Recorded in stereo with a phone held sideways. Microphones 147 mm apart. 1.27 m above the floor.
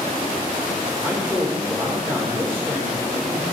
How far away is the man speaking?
About 4 m.